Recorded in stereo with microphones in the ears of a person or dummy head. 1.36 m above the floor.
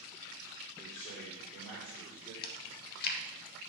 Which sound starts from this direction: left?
Chewing, at 2.4 s.